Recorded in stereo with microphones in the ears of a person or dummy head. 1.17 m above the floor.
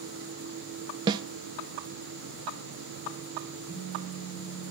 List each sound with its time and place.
1.1 s a snare drum: 25° right (ahead or behind), 0.8 m
3.7 s a phone buzzing: 10° right (ahead or behind), 7 m